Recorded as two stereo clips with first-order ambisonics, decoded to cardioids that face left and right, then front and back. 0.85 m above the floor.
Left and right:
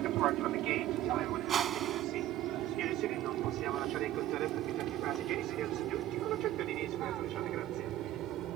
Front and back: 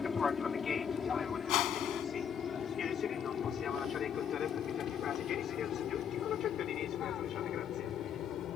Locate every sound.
0.0 s an aircraft: 70° right; by 8.6 s 45° right
1.5 s a whoosh: 25° right